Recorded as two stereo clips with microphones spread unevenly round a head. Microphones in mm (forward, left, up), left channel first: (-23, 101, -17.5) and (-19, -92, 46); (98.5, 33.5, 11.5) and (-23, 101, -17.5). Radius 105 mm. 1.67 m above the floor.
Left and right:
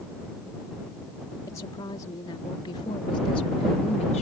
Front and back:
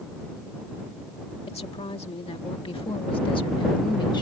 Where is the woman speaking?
15° left; by 4.2 s 30° left.